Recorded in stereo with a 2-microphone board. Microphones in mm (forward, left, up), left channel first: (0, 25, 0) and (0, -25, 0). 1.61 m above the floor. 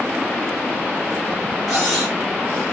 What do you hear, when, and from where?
1.7 s cutlery clinking: 5° left (ahead or behind), 1.8 m